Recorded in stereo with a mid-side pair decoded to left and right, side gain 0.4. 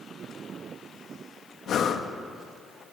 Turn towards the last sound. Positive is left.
turn(degrees=65)